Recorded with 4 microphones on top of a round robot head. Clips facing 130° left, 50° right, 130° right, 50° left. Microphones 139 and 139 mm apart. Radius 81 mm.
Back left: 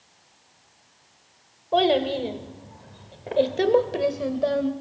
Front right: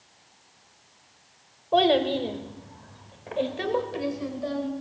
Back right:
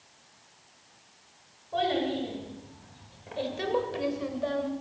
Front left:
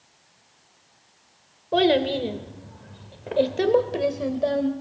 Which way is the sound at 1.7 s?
40° left.